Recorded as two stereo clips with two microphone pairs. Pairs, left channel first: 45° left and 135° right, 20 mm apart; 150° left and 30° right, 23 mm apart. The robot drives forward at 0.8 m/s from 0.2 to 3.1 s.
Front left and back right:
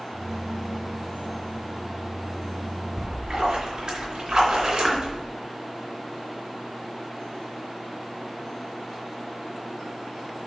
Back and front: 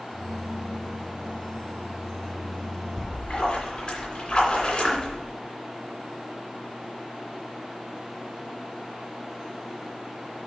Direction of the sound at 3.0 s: 175° right.